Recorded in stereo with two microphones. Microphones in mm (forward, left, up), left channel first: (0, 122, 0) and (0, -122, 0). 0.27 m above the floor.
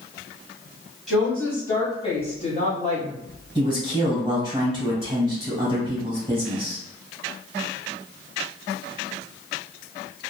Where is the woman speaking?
Centre (ahead or behind), 1.6 m; by 3.2 s 35° left (ahead or behind), 1.6 m.